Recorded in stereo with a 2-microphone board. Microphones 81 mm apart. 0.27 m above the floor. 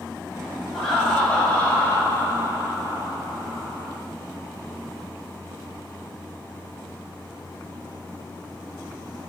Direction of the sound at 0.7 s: Centre (ahead or behind).